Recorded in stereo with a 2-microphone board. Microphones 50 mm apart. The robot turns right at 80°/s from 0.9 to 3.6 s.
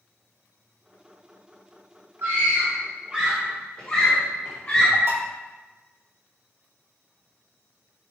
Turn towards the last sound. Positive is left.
turn(degrees=-60)  # may be behind; listen again after turning